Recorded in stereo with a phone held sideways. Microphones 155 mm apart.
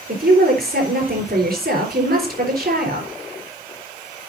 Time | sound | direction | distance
0.1 | a woman speaking | 70° right (ahead or behind) | 4 m